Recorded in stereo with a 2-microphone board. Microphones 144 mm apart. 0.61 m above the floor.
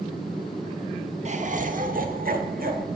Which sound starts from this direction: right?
Laughter, at 1.2 s.